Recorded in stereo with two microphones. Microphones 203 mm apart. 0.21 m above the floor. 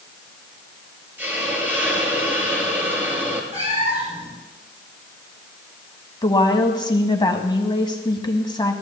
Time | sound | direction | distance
1.2 | a hiss | 10° right (ahead or behind) | 2 m
3.5 | a cat meowing | 30° right (ahead or behind) | 7.5 m
6.2 | a woman speaking | 20° left (ahead or behind) | 1.3 m